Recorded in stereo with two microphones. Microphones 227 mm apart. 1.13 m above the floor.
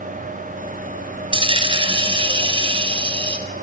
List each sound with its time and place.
1.3 s a dropped coin: 20° right (ahead or behind), 0.5 m